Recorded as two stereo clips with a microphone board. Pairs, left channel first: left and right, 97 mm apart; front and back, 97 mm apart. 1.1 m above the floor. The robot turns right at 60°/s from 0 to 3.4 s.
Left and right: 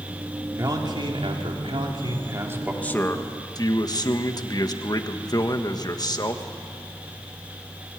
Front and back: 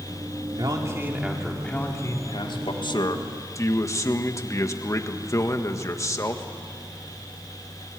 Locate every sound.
0.6 s a man speaking: 140° right, 3 m; by 2.7 s 15° right, 3 m
2.8 s a man speaking: 15° left, 1.5 m; by 6.5 s 50° left, 1.5 m